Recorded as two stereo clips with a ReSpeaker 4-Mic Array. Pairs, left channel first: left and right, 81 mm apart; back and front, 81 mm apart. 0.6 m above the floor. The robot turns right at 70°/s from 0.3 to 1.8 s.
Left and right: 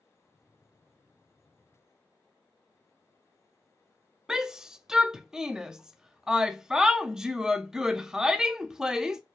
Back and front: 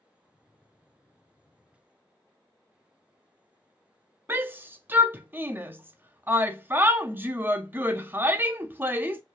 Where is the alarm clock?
I don't hear an alarm clock.